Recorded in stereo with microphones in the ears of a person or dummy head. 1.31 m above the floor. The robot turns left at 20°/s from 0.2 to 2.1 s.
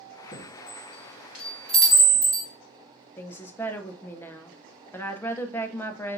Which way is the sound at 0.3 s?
35° left (ahead or behind).